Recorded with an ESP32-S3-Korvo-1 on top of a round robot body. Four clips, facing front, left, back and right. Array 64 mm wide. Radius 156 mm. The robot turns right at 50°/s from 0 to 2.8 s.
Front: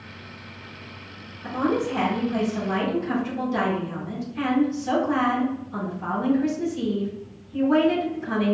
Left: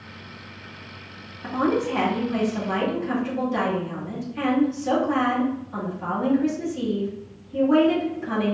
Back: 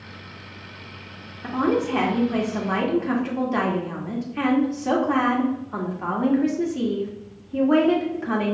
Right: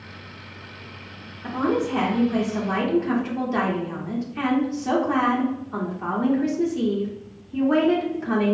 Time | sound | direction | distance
1.4 | a woman speaking | 130° left | 1.8 m